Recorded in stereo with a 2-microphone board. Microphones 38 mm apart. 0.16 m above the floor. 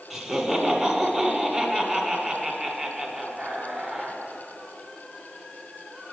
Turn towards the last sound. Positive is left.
turn(degrees=-5)  # may be behind; listen again after turning